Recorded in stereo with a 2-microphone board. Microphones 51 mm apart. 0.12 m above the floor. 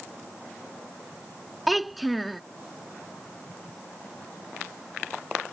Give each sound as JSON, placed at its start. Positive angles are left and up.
{"t": 1.7, "sound": "a child speaking", "side_deg": 0}